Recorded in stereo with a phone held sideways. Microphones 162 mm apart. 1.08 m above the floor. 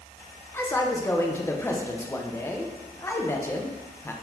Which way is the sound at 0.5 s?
15° left (ahead or behind).